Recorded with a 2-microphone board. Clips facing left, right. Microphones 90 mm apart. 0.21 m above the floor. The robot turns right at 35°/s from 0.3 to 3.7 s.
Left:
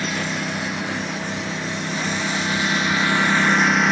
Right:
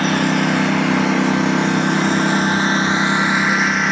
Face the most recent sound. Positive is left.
turn(degrees=0)